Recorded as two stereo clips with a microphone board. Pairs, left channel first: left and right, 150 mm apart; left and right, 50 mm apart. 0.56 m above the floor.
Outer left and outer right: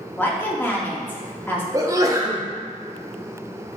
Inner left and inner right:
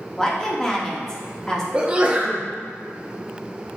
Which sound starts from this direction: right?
A sneeze, at 1.7 s.